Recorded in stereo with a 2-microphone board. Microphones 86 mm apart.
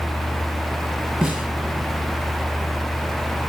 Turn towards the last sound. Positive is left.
turn(degrees=0)  # may be behind; listen again after turning